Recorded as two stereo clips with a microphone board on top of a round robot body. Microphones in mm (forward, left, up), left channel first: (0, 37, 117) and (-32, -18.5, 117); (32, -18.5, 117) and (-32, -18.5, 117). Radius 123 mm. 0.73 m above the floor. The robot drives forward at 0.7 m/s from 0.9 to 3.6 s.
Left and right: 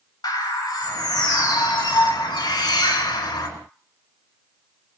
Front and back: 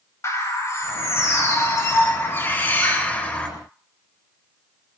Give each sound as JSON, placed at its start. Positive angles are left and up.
{"t": 0.2, "sound": "a bird", "azimuth_deg": 45, "distance_m": 4.0}